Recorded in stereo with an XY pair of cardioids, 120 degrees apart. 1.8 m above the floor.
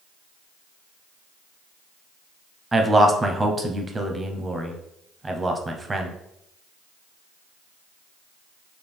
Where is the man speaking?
20° right, 0.8 m.